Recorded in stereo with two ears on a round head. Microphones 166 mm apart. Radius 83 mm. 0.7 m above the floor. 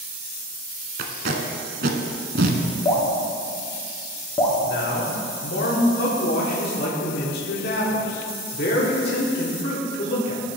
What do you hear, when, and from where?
1.0 s tape being pulled: 50° right (ahead or behind), 1.1 m
2.9 s dripping: 20° left (ahead or behind), 1.6 m
4.6 s a man speaking: 55° left (ahead or behind), 1.8 m